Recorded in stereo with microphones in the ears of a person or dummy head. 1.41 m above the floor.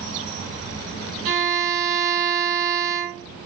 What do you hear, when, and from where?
1.2 s a violin: 80° right, 3 m